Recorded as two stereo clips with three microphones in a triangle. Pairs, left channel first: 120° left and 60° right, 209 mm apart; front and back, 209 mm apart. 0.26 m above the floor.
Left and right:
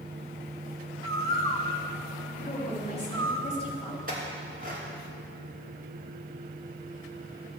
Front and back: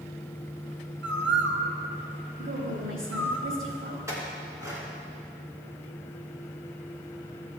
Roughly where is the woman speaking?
Behind.